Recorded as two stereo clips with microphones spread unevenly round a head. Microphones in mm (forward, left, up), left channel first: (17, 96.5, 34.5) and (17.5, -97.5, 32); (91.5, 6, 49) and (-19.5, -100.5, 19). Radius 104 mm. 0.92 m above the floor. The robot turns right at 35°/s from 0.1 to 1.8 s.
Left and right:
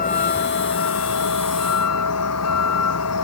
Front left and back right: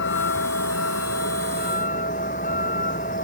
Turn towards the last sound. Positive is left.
turn(degrees=100)